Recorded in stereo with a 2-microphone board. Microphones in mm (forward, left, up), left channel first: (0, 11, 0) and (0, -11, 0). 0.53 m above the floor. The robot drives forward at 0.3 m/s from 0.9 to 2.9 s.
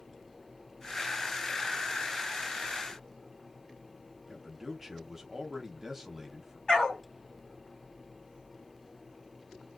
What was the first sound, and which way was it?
A man speaking, 15° right (ahead or behind).